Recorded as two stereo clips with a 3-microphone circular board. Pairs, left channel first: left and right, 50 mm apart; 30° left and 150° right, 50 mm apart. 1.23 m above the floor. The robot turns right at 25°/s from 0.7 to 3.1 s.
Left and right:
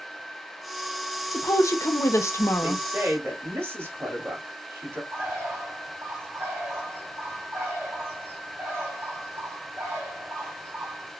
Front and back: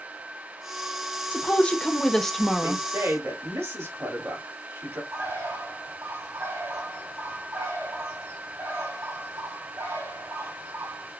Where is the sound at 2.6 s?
135° right, 2.5 m; by 5.0 s 125° right, 2.5 m.